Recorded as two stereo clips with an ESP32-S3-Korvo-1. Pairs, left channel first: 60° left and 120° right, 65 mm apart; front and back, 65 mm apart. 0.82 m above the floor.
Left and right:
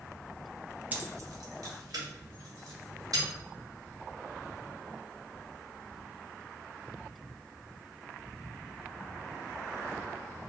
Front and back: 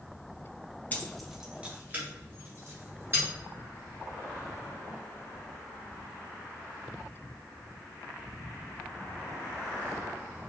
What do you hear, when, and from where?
0.9 s keys jangling: 60° right, 0.6 m; by 3.2 s 130° right, 2.5 m